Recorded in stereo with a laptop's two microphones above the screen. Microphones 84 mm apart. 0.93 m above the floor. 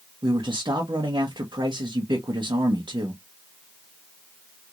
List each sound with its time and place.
0.2 s a man speaking: 65° right (ahead or behind), 0.9 m